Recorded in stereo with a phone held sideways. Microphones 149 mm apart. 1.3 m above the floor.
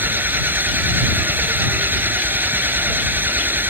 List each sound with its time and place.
0.0 s an engine running: 15° right (ahead or behind)